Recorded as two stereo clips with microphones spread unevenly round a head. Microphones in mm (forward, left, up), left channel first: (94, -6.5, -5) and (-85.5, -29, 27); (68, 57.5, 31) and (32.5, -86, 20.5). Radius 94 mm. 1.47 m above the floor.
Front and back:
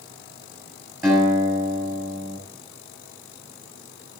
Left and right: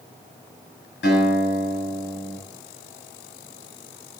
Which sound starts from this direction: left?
A guitar, at 1.0 s.